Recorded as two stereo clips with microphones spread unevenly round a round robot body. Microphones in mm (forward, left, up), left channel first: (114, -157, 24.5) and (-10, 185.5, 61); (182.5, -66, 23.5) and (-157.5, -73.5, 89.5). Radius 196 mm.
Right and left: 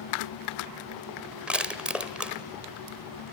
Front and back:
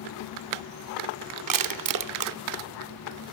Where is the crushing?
160° right, 1.1 m.